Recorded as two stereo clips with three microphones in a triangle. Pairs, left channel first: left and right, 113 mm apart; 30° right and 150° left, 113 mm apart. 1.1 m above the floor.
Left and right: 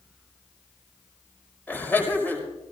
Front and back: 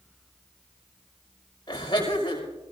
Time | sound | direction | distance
1.7 | laughter | 15° left | 5 m